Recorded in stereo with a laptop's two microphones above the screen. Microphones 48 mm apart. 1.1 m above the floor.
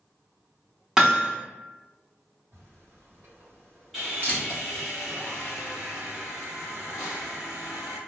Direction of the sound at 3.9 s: 5° right (ahead or behind).